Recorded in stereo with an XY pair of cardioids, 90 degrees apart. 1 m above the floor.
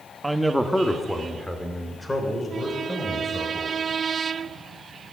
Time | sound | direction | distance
0.2 | a man speaking | 15° right | 1.3 m